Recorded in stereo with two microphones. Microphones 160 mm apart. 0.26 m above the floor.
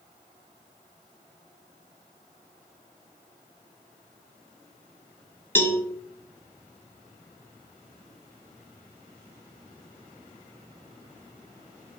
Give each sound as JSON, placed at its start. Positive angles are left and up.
{"t": 5.5, "sound": "a cowbell", "side_deg": 15, "distance_m": 1.5}